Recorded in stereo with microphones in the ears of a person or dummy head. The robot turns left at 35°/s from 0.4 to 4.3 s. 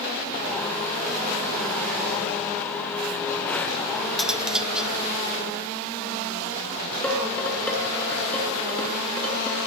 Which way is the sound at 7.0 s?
10° left (ahead or behind).